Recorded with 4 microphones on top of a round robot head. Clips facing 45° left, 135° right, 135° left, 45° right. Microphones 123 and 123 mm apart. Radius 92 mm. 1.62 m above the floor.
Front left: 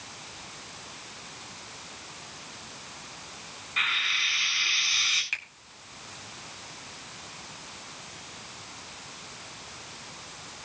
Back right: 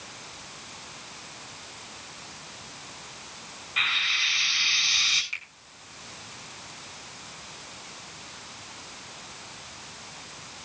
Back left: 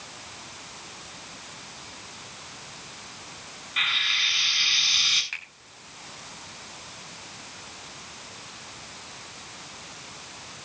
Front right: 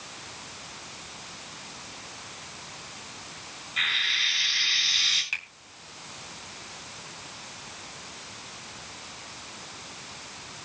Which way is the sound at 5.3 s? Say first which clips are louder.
Front left 3 dB, front right 2 dB; 30° left.